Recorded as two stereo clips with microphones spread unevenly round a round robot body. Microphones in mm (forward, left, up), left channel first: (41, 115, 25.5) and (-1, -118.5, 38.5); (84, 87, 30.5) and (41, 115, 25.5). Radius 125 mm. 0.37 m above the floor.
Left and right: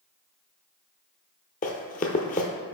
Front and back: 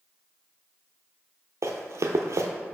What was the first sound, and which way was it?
Running footsteps, 135° left.